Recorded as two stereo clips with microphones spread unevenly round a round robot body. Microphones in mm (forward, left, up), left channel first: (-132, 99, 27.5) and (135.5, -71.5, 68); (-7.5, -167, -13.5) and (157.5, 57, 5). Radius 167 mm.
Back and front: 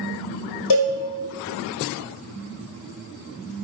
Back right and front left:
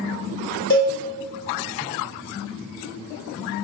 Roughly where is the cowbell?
Behind.